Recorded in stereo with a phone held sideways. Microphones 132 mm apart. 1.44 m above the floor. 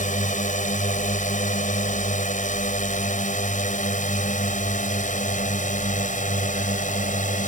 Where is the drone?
70° left (ahead or behind); by 7.5 s 75° left (ahead or behind).